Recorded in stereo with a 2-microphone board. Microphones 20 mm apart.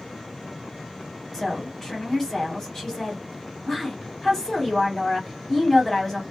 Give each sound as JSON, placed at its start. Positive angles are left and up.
{"t": 1.3, "sound": "a woman speaking", "side_deg": 25, "distance_m": 1.4}